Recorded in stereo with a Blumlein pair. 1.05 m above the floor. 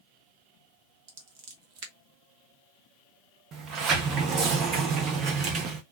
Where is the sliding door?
30° right, 1.0 m.